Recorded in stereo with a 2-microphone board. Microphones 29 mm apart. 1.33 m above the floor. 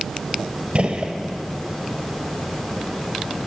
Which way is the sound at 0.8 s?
35° right (ahead or behind).